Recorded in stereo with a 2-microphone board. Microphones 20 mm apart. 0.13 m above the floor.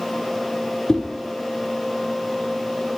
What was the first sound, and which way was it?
A whoosh, 35° left (ahead or behind).